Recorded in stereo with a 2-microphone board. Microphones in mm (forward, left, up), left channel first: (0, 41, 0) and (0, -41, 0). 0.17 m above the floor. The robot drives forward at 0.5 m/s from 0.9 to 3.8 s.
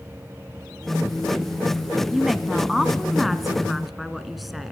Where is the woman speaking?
Centre (ahead or behind), 1.1 m.